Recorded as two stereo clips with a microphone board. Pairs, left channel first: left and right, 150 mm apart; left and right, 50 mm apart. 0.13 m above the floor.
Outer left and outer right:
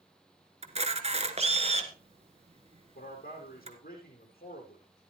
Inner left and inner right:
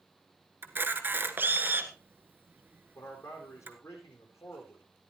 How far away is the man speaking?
About 5.5 m.